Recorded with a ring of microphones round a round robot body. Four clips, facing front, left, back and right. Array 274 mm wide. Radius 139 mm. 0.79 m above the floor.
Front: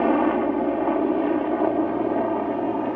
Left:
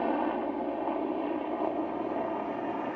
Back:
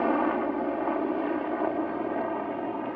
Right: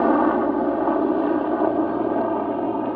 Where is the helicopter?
60° right; by 3.0 s 50° right.